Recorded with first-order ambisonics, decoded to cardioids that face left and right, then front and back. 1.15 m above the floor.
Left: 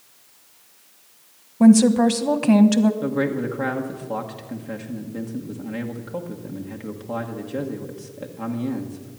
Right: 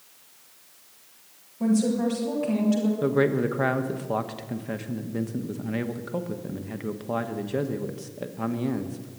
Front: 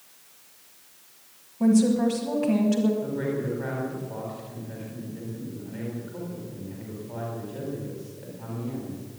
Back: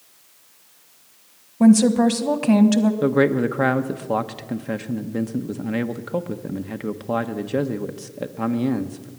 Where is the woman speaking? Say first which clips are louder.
Left 9 dB, back 6 dB; 130° left, 1.2 m.